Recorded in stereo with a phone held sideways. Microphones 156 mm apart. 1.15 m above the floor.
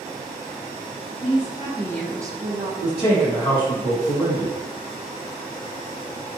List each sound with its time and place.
1.2 s a woman speaking: 55° left (ahead or behind), 0.9 m; by 2.7 s 55° right (ahead or behind), 0.8 m
2.8 s a man speaking: 40° left (ahead or behind), 1.4 m